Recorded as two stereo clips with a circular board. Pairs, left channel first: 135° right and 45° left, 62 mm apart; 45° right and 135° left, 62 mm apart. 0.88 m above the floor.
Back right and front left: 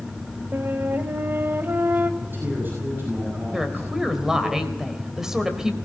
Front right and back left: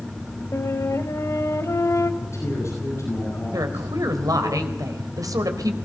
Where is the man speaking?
10° right, 9.5 m.